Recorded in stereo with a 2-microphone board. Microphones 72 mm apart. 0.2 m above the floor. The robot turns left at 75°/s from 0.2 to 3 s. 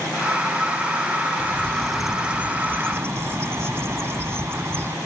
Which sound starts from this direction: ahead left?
A bird, at 1.4 s.